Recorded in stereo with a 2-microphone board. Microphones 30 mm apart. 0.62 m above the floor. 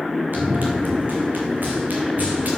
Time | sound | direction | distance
0.3 | running footsteps | 75° right (ahead or behind) | 3 m